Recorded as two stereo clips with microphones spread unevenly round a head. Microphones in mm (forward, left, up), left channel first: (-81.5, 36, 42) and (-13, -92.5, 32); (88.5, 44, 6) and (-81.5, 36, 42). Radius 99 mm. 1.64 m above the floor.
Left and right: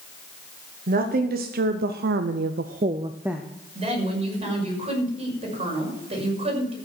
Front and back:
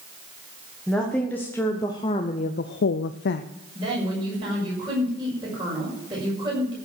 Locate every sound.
0.9 s a woman speaking: 85° right, 1.4 m; by 3.5 s 30° left, 0.6 m
3.8 s a woman speaking: 110° right, 6 m